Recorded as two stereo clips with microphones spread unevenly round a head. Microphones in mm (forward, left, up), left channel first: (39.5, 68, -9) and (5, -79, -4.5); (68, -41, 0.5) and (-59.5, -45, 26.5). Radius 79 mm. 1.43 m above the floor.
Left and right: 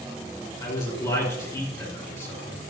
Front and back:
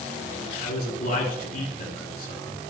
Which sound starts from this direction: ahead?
A man speaking, at 0.6 s.